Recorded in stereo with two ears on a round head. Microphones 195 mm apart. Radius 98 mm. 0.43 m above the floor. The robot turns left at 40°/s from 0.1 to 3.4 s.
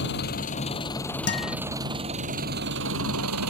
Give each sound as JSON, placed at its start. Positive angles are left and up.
{"t": 0.0, "sound": "an engine running", "azimuth_deg": 50}
{"t": 1.3, "sound": "a guitar", "side_deg": 55}